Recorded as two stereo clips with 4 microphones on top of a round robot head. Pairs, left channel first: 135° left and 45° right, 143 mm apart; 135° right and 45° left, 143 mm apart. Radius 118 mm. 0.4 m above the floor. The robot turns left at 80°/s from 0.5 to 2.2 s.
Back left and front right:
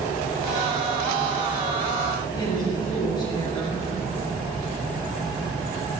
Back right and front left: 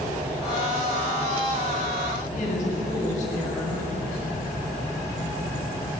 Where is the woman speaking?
165° right, 4 m.